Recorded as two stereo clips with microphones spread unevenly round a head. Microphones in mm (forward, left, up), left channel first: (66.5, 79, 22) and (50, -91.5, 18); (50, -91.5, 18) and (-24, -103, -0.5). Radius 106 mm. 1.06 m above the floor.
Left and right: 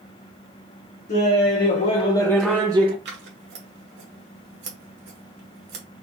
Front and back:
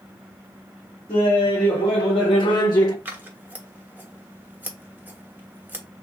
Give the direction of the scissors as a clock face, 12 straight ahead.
3 o'clock.